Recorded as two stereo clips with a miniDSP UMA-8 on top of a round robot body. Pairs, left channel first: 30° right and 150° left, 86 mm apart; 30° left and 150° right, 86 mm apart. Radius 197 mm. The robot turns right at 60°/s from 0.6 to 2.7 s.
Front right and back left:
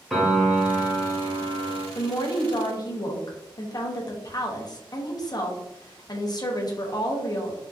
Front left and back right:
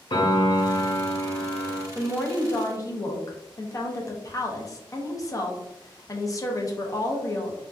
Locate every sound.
0.1 s a piano: 60° left, 1.0 m; by 1.9 s 135° left, 1.0 m
1.9 s a woman speaking: 55° right, 0.9 m; by 7.6 s 10° right, 0.9 m